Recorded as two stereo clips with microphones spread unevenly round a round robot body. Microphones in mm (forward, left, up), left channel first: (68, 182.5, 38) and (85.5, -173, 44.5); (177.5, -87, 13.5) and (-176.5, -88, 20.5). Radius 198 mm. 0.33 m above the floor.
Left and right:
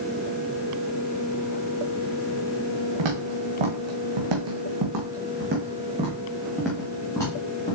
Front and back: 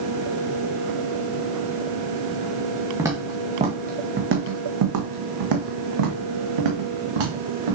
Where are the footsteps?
95° right, 2.0 m; by 7.8 s 170° left, 2.5 m.